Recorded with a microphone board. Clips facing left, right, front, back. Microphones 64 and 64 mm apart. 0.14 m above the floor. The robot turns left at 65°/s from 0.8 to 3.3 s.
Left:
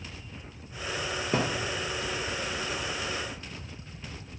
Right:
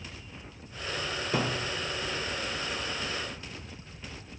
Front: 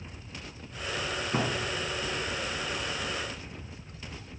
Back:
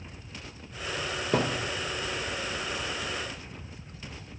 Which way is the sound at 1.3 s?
155° left.